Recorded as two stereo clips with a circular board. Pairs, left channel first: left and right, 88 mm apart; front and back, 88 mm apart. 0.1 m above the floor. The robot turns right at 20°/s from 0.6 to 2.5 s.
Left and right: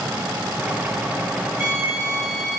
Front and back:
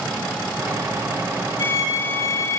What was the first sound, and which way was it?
A violin, 15° right.